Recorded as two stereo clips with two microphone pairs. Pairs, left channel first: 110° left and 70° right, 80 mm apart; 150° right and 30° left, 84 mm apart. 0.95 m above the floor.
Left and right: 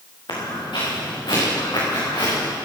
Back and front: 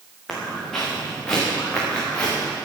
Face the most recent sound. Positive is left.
turn(degrees=135)